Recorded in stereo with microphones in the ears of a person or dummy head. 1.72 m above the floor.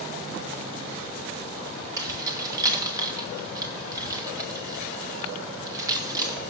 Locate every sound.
2.0 s keys jangling: 20° right (ahead or behind), 1.3 m